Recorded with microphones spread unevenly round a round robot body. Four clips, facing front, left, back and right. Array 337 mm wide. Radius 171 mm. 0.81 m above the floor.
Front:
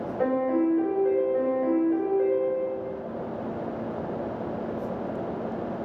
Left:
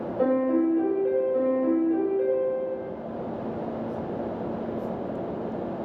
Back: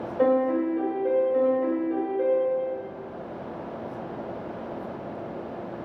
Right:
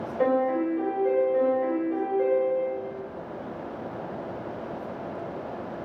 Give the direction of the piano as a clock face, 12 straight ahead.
8 o'clock.